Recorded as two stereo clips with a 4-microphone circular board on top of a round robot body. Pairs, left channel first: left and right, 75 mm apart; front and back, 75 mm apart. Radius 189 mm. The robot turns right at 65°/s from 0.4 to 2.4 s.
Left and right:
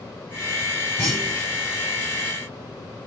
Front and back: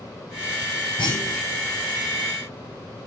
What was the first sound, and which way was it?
A clunk, 5° right.